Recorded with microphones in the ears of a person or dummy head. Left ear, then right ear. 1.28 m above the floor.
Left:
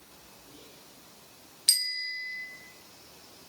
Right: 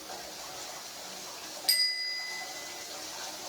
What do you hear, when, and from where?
1.7 s a bicycle bell: 30° left (ahead or behind), 2.5 m